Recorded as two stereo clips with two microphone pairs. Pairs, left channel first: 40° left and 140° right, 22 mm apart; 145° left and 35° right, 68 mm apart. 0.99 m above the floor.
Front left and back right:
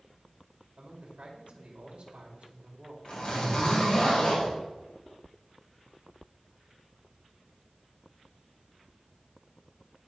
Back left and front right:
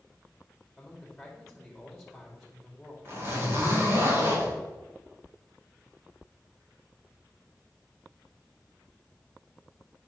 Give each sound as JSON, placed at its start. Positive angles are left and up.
{"t": 0.8, "sound": "a man speaking", "azimuth_deg": -125, "distance_m": 2.5}
{"t": 3.0, "sound": "a zipper", "azimuth_deg": 20, "distance_m": 2.5}